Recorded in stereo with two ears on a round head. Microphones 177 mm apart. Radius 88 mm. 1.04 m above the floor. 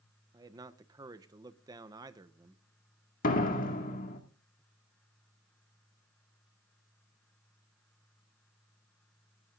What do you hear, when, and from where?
0.3 s a man speaking: 20° right (ahead or behind), 0.7 m
3.2 s a door slam: 45° left (ahead or behind), 2 m